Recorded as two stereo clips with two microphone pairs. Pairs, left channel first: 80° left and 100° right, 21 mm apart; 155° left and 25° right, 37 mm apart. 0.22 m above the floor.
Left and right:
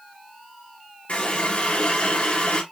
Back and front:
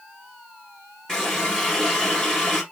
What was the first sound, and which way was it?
A running tap, 80° left.